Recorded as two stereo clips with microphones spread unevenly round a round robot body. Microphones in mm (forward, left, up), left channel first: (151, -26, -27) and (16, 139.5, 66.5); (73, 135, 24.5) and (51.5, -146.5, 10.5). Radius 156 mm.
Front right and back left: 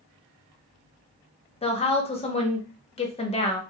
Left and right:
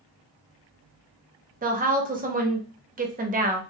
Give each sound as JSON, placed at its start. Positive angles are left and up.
{"t": 1.6, "sound": "a woman speaking", "azimuth_deg": -45, "distance_m": 1.0}